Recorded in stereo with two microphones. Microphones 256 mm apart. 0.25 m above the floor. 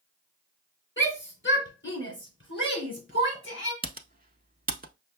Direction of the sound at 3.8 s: 35° right (ahead or behind).